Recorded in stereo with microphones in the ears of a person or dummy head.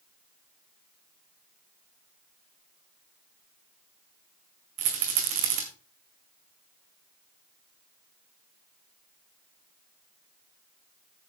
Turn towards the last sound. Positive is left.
turn(degrees=-40)  # may be behind; listen again after turning